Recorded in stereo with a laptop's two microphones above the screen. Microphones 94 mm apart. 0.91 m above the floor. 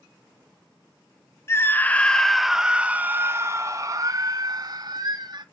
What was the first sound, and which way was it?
A scream, 30° left (ahead or behind).